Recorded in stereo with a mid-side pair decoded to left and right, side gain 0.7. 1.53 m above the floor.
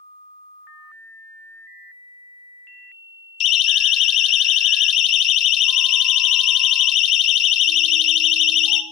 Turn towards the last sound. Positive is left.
turn(degrees=50)